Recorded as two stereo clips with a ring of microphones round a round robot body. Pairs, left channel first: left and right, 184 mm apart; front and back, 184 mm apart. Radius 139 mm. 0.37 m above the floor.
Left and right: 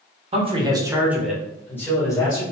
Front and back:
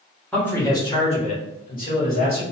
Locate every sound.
0.3 s a man speaking: 80° right, 1.3 m; by 2.4 s 25° left, 2 m